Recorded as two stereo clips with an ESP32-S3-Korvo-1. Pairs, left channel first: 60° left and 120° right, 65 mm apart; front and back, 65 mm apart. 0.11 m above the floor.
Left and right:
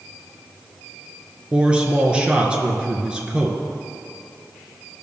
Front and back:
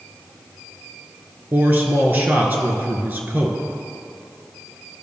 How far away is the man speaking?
About 1.2 m.